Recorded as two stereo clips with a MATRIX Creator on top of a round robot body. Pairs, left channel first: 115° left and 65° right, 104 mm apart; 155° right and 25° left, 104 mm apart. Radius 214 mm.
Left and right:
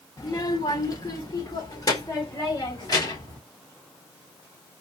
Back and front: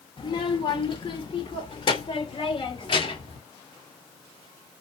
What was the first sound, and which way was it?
A child speaking, 165° left.